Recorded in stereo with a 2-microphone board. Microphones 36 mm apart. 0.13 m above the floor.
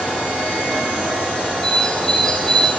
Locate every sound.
1.6 s a bird: 10° left (ahead or behind), 4 m